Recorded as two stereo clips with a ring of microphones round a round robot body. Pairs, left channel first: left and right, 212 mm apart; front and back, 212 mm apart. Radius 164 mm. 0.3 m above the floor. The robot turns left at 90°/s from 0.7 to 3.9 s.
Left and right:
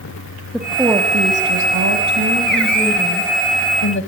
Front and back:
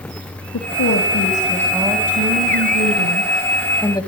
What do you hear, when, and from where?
0.5 s a woman speaking: straight ahead, 1.9 m; by 4.1 s 70° left, 1.9 m